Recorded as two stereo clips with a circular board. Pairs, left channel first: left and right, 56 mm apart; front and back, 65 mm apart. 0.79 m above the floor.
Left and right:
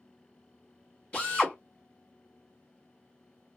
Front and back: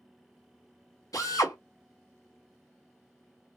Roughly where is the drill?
Ahead.